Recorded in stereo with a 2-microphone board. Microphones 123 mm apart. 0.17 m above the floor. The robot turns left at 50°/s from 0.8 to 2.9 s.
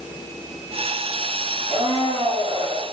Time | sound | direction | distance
1.7 | a blender | 75° right | 0.8 m